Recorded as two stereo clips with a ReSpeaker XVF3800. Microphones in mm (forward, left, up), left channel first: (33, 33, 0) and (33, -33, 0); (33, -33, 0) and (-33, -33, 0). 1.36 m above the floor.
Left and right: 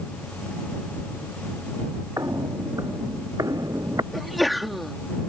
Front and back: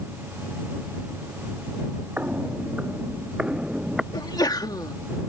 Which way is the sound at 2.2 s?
115° right.